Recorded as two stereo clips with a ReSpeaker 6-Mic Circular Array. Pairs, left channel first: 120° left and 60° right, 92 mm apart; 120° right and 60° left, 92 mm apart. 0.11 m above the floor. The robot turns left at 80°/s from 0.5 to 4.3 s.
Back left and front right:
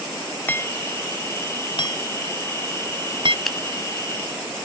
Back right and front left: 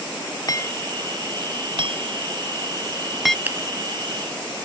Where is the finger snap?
35° left; by 3.6 s 25° left.